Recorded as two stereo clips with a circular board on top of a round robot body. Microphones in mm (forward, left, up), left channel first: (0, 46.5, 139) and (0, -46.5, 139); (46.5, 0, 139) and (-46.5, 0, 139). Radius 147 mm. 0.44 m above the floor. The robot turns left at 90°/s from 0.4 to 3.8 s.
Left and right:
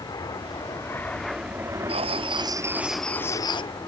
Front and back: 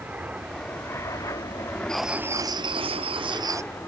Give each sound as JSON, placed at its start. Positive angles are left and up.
{"t": 0.0, "sound": "an aircraft", "azimuth_deg": 110}
{"t": 1.9, "sound": "writing", "azimuth_deg": -85}